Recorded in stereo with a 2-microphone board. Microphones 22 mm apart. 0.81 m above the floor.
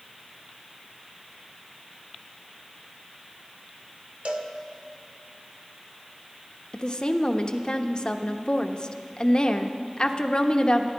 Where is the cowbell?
75° right (ahead or behind), 1.4 m.